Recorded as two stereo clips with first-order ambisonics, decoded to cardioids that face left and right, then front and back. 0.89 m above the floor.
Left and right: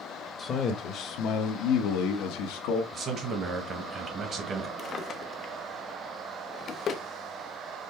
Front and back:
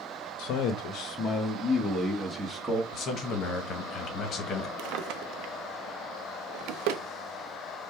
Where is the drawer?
155° left, 0.5 m.